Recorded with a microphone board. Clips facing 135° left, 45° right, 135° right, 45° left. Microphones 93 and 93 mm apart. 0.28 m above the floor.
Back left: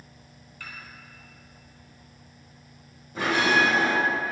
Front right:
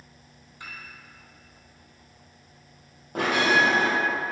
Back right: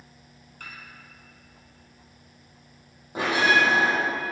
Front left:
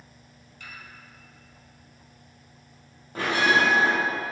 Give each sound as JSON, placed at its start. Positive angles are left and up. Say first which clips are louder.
{"t": 0.6, "sound": "a piano", "louder": "even, back right 1 dB", "azimuth_deg": -110, "distance_m": 2.0}
{"t": 3.1, "sound": "a bell", "louder": "front right 1 dB, back right 1 dB", "azimuth_deg": -65, "distance_m": 3.0}